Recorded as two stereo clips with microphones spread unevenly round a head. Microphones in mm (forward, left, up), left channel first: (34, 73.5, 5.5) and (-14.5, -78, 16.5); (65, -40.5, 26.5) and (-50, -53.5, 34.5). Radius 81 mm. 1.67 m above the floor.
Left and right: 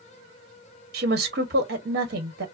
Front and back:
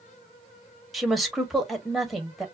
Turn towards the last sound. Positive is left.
turn(degrees=-85)